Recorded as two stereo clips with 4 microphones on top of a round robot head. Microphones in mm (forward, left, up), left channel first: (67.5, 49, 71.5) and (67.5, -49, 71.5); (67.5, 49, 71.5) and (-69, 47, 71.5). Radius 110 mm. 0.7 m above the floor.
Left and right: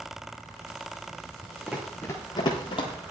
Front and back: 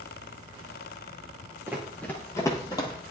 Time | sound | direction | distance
1.7 | running footsteps | 125° right | 0.7 m